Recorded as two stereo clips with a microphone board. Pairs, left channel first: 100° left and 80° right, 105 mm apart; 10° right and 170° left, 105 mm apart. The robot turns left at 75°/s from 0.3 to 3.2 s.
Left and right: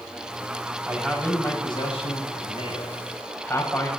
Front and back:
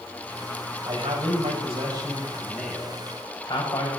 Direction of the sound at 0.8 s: 150° right.